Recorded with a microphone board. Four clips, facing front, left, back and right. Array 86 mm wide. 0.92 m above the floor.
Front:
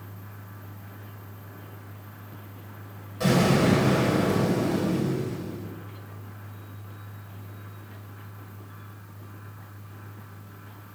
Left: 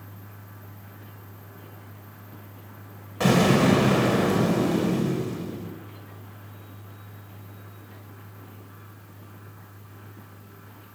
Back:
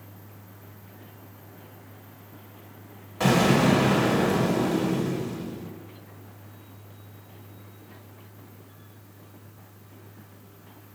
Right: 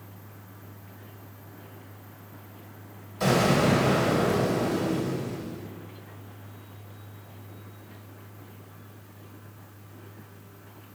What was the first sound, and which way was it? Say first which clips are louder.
An explosion: left 3 dB, back 1 dB; 120° left.